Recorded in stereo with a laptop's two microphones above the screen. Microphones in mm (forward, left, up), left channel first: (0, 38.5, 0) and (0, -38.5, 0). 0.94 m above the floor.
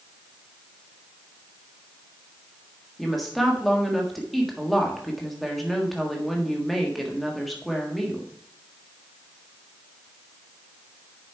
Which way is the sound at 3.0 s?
Centre (ahead or behind).